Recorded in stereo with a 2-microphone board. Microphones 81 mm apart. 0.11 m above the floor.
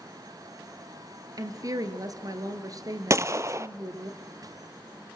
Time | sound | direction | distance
1.4 | a woman speaking | 50° right (ahead or behind) | 2.5 m
3.1 | a gunshot | 40° right (ahead or behind) | 0.7 m